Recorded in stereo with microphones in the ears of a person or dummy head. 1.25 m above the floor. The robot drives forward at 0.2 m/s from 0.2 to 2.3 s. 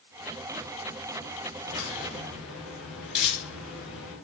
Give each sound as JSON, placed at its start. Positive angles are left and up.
{"t": 1.6, "sound": "a crack", "side_deg": -10, "distance_m": 1.5}